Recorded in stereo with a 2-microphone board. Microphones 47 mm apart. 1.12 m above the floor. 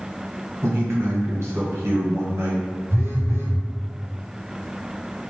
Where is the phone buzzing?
60° right (ahead or behind), 1.8 m.